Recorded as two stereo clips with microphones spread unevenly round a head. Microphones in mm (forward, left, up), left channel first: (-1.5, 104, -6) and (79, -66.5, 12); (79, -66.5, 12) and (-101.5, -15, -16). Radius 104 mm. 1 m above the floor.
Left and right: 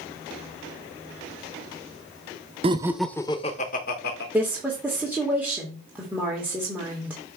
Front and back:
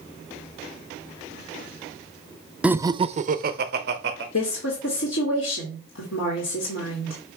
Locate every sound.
2.6 s laughter: 120° right, 0.6 m; by 4.2 s 145° left, 1.2 m
4.3 s a woman speaking: 15° left, 2 m